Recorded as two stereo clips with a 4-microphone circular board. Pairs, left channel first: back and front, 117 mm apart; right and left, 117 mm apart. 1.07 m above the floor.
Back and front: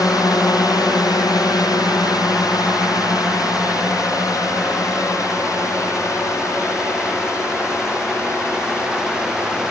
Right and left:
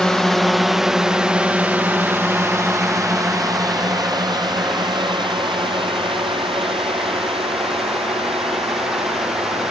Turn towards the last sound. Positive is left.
turn(degrees=110)